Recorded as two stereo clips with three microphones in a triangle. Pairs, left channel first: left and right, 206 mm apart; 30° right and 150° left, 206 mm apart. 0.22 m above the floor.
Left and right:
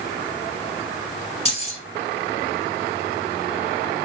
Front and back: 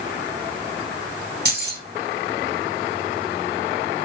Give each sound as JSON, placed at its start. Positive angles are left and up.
{"t": 1.4, "sound": "keys jangling", "azimuth_deg": 140, "distance_m": 1.0}